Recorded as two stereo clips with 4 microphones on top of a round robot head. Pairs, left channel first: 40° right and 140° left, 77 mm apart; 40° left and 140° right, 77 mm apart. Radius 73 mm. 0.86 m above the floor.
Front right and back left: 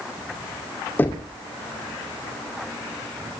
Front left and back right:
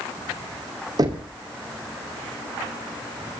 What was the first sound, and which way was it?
Knocking, 105° right.